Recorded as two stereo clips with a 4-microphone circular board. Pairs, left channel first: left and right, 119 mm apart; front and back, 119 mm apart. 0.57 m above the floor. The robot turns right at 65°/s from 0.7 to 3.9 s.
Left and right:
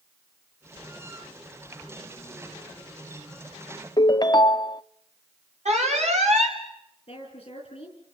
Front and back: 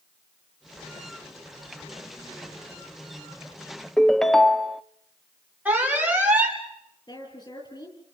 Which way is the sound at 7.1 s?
50° left.